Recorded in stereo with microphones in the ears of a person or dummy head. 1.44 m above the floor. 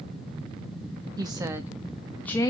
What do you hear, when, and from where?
1.2 s a woman speaking: 20° right (ahead or behind), 1.9 m; by 2.5 s 20° left (ahead or behind), 1.6 m